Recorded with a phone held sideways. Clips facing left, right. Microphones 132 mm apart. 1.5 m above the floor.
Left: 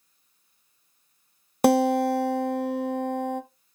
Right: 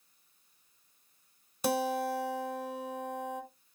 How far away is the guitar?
About 0.5 m.